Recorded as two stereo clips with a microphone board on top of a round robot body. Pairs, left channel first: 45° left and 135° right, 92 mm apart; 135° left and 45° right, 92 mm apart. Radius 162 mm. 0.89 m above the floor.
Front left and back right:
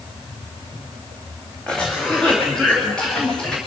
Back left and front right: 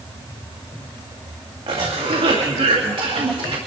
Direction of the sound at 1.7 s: 35° right.